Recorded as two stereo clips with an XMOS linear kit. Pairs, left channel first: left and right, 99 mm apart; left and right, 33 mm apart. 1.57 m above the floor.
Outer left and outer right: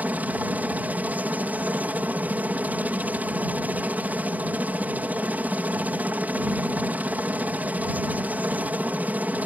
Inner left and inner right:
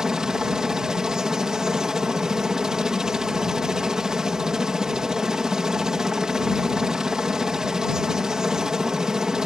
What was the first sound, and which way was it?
A helicopter, 15° right (ahead or behind).